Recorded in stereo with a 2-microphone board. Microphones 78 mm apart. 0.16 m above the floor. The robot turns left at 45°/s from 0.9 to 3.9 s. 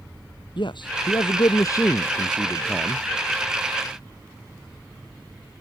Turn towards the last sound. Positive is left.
turn(degrees=-50)